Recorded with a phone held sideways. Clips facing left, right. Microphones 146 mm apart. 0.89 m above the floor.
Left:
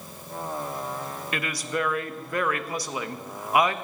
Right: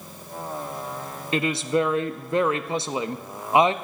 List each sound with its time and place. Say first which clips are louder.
1.3 s a woman speaking: right 8 dB; 25° right (ahead or behind), 0.5 m